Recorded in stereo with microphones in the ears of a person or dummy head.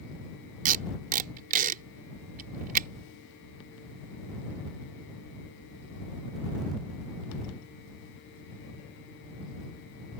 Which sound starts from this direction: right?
Tape being pulled, at 0.7 s.